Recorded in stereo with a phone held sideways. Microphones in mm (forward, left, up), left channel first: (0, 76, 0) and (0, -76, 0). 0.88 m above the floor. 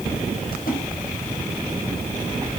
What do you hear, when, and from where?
0.5 s a splash: 80° left, 5.5 m